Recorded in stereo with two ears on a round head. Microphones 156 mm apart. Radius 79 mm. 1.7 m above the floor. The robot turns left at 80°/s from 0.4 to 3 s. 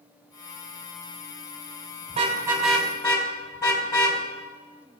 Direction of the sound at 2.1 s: 40° right (ahead or behind).